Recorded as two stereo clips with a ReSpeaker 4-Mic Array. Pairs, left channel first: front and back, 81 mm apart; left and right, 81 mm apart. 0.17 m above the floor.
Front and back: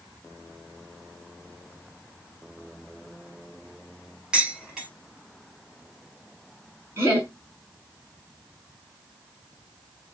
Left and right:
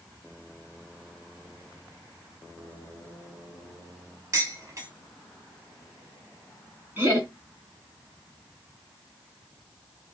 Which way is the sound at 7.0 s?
145° right.